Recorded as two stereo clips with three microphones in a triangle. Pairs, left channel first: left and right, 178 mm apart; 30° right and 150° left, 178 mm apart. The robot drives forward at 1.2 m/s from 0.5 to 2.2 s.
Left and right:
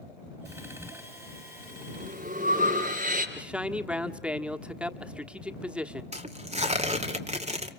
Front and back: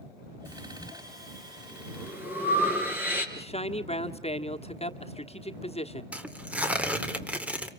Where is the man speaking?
10° right, 1.2 m.